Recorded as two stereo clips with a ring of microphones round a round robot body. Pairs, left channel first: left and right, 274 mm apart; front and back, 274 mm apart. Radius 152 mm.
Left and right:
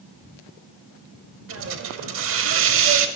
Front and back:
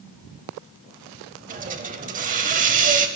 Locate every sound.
1.5 s a hiss: 120° right, 0.7 m